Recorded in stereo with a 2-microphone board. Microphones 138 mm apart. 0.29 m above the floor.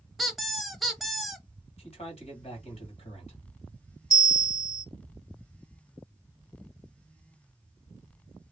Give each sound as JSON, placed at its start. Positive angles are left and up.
{"t": 0.2, "sound": "a squeak", "side_deg": 0, "distance_m": 0.6}
{"t": 1.8, "sound": "a man speaking", "side_deg": 50, "distance_m": 1.7}
{"t": 4.1, "sound": "a bell", "side_deg": 25, "distance_m": 0.7}